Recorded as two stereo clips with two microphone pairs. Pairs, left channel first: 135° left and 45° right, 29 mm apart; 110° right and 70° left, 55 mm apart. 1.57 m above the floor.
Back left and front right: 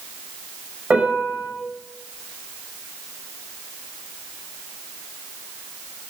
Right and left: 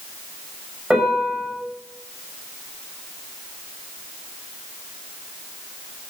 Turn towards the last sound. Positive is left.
turn(degrees=0)